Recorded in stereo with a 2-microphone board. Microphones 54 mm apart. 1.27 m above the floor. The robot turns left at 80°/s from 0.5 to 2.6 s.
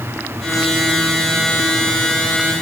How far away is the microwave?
No microwave in this recording.